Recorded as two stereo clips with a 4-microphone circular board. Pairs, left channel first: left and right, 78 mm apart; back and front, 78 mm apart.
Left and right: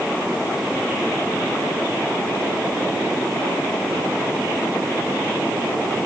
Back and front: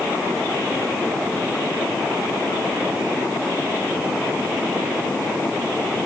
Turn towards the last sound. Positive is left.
No sound to turn to.